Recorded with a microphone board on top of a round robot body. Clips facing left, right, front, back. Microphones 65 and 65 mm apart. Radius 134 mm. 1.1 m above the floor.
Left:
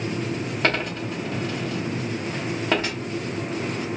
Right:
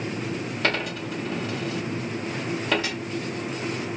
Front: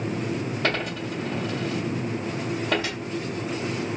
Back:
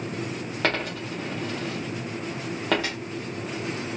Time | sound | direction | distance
0.6 | a dropped coin | 155° left | 0.7 m